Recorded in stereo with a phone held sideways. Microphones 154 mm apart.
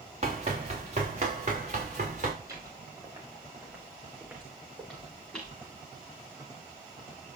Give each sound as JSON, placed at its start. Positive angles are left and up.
{"t": 0.2, "sound": "running footsteps", "side_deg": -45, "distance_m": 4.5}
{"t": 2.4, "sound": "footsteps", "side_deg": -25, "distance_m": 6.5}